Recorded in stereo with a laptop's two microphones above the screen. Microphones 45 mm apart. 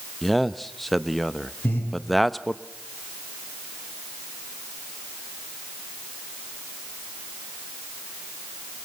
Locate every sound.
0.2 s a man speaking: centre (ahead or behind), 0.9 m
1.6 s breathing: 55° left (ahead or behind), 5 m